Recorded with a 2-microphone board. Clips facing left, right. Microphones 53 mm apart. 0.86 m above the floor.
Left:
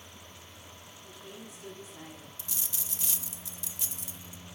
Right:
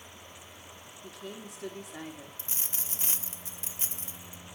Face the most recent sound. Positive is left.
turn(degrees=-40)  # may be behind; listen again after turning